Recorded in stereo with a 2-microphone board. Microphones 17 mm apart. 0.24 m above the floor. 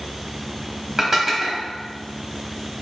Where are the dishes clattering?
20° right (ahead or behind), 0.7 m.